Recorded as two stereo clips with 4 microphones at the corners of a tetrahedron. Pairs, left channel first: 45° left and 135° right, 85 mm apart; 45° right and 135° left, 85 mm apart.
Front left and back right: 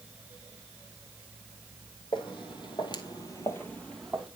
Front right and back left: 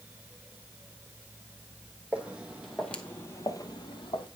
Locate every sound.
2.1 s footsteps: 60° left, 1.5 m; by 4.3 s 45° right, 1.3 m